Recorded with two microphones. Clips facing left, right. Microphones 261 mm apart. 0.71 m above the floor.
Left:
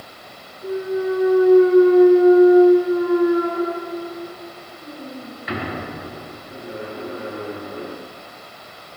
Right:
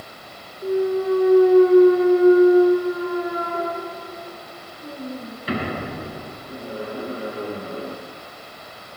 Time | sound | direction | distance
0.6 | a clunk | 35° right (ahead or behind) | 8.5 m